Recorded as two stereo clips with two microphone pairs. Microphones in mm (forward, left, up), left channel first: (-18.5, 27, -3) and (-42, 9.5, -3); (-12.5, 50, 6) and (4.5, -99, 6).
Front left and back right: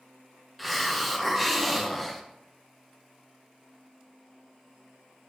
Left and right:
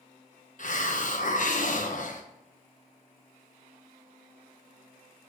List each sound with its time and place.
0.6 s a hiss: 125° left, 0.7 m